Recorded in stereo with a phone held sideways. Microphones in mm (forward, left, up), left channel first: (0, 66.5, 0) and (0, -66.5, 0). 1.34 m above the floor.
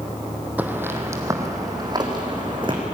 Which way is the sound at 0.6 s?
15° right (ahead or behind).